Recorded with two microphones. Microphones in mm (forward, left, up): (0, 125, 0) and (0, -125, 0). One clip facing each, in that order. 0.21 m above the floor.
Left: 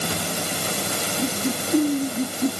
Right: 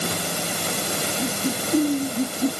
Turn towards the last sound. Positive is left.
No sound to turn to.